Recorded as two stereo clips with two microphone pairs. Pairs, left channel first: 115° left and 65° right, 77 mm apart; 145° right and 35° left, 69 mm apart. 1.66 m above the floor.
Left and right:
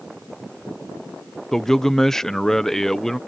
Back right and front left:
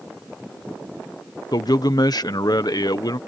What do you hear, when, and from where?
1.5 s a man speaking: 160° right